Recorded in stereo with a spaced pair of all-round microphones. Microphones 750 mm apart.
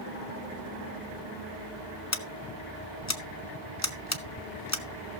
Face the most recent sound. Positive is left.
turn(degrees=20)  # may be behind; listen again after turning